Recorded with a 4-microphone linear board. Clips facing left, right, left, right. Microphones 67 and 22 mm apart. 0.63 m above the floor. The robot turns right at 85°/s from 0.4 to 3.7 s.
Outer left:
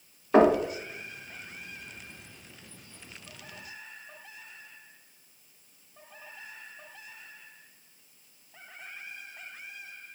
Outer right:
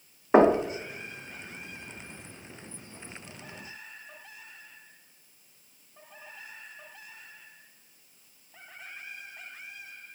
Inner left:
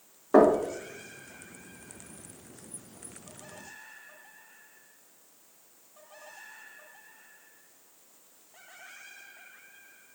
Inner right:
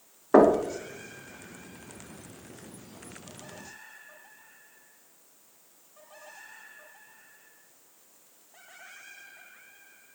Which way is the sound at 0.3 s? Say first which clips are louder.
Outer right 1 dB, inner right 1 dB; 25° right (ahead or behind).